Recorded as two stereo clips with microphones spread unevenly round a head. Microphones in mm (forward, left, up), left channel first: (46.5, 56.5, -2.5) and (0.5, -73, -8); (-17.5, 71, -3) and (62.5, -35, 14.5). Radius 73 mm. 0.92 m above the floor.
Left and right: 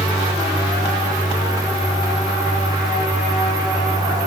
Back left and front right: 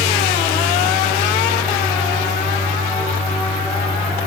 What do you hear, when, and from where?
0.0 s a fan: 50° right, 3.5 m